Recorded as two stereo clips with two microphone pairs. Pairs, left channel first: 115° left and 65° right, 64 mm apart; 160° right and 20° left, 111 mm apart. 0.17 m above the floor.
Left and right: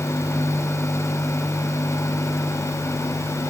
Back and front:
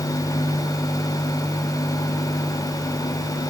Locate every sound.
Only background noise.